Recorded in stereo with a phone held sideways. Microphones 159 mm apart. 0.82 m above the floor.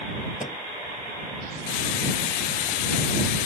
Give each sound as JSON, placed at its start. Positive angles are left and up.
{"t": 0.4, "sound": "a microwave", "side_deg": 45}